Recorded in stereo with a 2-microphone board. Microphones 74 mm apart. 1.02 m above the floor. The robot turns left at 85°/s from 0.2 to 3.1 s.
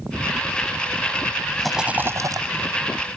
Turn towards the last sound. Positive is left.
turn(degrees=-120)